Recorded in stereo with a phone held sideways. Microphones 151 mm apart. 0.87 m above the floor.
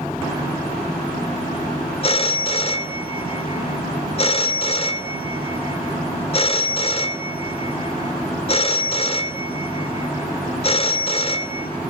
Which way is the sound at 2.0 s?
40° left (ahead or behind).